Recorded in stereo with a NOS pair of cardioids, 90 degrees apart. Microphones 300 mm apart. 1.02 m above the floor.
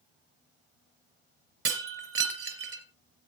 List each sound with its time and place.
1.6 s breaking glass: 50° right, 3 m